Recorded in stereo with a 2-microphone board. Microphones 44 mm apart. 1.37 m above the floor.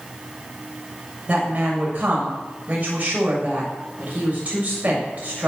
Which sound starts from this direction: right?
A woman speaking, at 1.3 s.